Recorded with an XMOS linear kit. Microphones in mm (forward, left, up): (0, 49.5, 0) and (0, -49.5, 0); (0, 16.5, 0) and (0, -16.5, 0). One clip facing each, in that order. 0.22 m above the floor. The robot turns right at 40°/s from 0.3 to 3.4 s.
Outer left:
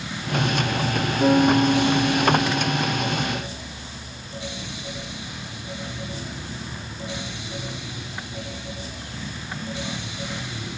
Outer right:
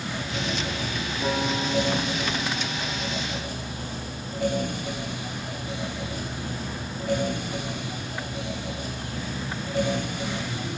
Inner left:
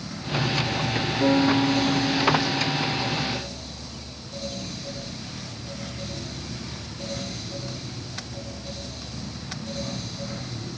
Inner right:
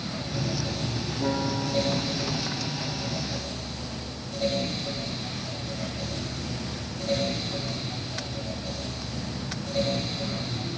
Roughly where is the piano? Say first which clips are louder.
Outer left 10 dB, inner left 8 dB; ahead left.